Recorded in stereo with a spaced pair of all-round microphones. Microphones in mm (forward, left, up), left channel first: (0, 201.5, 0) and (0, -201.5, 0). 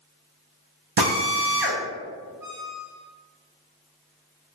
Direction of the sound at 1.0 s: 75° right (ahead or behind).